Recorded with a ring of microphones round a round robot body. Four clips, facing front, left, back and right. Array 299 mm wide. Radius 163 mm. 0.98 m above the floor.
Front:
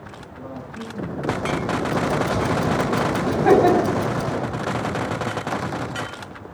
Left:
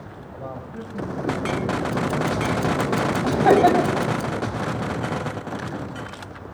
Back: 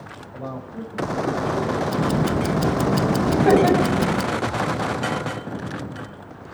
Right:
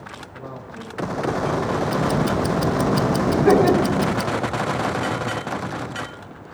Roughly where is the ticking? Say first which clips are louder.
Right 3 dB, front 2 dB; behind right.